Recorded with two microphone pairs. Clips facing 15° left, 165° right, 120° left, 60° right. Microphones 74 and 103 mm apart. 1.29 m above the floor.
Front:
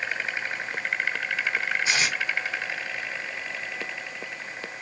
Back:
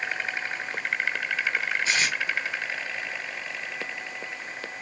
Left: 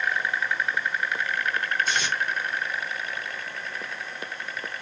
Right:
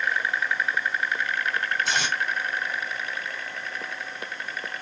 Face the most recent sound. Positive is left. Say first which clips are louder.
# even, right 1 dB
turn(degrees=-60)